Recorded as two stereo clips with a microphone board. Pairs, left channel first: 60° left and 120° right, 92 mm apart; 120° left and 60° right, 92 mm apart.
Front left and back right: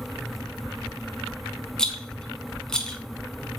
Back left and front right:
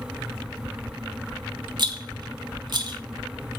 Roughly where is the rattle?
Ahead right.